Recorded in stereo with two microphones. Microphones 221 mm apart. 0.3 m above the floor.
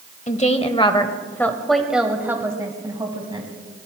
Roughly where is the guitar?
No guitar in this recording.